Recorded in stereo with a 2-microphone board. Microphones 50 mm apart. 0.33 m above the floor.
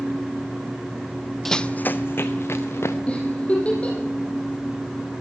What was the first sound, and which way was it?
Running footsteps, 5° left (ahead or behind).